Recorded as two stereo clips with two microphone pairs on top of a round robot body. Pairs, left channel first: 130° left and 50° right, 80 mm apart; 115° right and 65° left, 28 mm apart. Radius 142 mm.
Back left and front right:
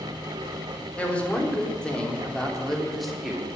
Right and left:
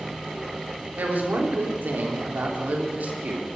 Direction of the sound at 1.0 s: 55° left.